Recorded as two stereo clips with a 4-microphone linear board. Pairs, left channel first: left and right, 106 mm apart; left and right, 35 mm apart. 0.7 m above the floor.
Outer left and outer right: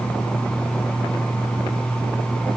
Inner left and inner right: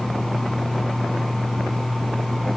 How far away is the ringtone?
No ringtone in this recording.